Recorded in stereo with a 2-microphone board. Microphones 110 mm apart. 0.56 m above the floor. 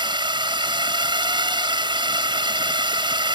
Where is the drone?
45° right (ahead or behind).